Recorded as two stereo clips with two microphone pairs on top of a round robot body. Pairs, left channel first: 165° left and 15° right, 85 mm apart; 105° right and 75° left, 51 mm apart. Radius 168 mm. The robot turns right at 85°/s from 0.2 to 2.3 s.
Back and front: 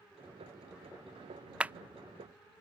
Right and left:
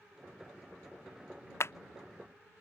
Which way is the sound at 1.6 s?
85° right.